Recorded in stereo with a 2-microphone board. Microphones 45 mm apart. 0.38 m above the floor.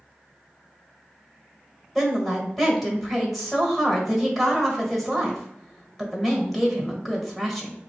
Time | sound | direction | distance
1.9 | a woman speaking | centre (ahead or behind) | 1.5 m